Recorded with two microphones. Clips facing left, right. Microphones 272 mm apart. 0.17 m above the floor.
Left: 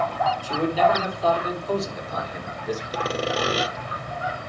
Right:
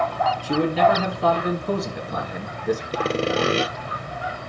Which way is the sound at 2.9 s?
30° right (ahead or behind).